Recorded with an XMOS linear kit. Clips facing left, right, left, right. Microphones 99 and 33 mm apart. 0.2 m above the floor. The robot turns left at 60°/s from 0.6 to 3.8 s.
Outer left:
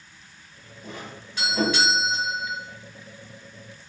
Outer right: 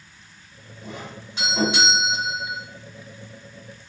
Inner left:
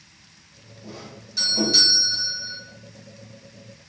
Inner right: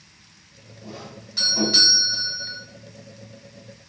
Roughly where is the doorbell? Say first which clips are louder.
Outer right 2 dB, inner right 1 dB; right.